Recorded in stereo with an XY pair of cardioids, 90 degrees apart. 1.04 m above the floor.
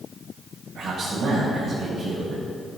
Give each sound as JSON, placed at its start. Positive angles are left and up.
{"t": 0.8, "sound": "a man speaking", "azimuth_deg": -70, "distance_m": 5.0}